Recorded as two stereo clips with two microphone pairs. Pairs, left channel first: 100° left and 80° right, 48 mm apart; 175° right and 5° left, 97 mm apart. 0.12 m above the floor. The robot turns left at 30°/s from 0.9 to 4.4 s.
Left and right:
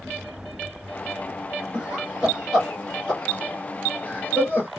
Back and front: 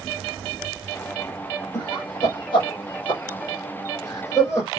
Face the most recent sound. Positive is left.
turn(degrees=130)